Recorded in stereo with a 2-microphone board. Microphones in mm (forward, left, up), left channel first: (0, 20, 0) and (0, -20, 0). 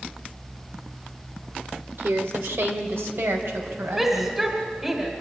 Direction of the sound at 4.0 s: 15° right (ahead or behind).